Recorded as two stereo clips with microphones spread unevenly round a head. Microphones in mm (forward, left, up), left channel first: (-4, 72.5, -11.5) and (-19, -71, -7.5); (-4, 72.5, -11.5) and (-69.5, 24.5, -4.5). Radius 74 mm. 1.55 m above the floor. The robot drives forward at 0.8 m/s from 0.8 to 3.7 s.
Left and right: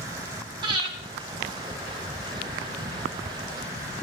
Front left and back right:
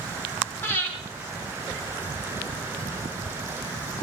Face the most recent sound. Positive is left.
turn(degrees=-100)